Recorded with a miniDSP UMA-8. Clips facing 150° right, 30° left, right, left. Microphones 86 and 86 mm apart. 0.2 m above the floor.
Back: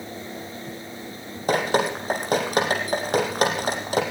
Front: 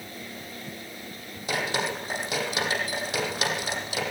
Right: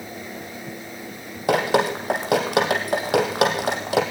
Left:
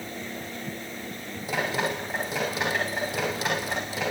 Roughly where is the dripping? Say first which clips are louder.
Back 7 dB, right 8 dB; right.